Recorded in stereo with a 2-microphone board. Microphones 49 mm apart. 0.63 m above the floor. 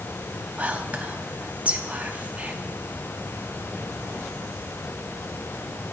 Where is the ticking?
I don't hear ticking.